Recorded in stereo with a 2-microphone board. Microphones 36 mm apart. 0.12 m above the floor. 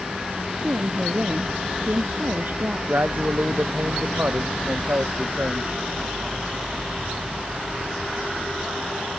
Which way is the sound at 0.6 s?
55° right (ahead or behind).